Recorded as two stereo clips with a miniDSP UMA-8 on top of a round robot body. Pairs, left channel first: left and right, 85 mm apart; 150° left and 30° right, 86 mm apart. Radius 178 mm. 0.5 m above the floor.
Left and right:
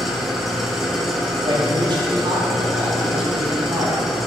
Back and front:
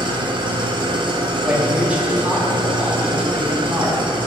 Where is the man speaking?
105° right, 2 m.